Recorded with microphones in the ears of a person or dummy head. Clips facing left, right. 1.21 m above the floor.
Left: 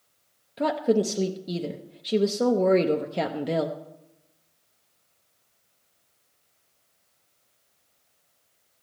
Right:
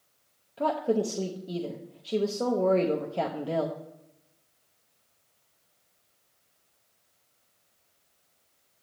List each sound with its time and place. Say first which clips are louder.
0.6 s a woman speaking: left 4 dB; 20° left (ahead or behind), 0.8 m